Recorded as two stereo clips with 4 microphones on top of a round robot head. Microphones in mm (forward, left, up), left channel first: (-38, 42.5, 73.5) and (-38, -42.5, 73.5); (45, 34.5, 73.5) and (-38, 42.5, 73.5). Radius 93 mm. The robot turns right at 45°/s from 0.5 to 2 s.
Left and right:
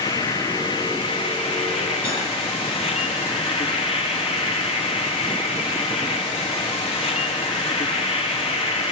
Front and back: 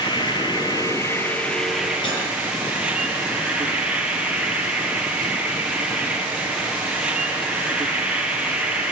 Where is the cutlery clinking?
15° left, 6 m.